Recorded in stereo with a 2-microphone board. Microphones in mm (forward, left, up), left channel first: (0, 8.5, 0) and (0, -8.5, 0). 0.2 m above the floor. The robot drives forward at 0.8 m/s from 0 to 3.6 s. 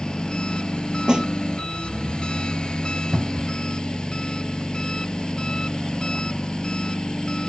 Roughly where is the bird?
I don't hear a bird.